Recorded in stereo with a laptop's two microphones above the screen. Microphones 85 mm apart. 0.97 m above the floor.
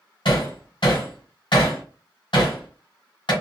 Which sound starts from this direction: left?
Hammering, at 0.2 s.